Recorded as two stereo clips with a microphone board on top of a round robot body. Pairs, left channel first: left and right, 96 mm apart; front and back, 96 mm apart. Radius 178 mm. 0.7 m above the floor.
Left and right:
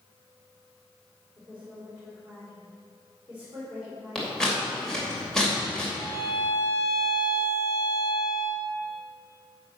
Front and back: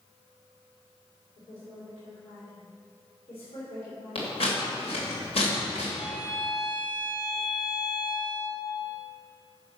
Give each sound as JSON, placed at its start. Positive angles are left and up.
{"t": 1.4, "sound": "a woman speaking", "azimuth_deg": -15, "distance_m": 3.0}
{"t": 4.2, "sound": "scissors", "azimuth_deg": 5, "distance_m": 3.0}
{"t": 6.0, "sound": "a violin", "azimuth_deg": 70, "distance_m": 3.5}